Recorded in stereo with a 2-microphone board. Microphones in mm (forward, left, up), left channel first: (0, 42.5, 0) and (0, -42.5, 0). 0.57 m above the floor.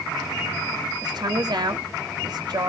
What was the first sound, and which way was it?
A woman speaking, 65° right (ahead or behind).